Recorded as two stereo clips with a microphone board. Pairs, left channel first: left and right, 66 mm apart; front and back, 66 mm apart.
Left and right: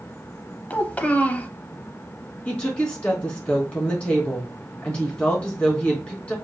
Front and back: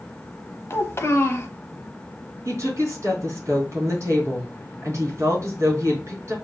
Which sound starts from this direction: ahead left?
A child speaking, at 0.7 s.